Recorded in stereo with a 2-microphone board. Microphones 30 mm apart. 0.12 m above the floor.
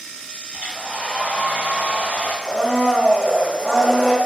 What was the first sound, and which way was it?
A hair dryer, 60° right (ahead or behind).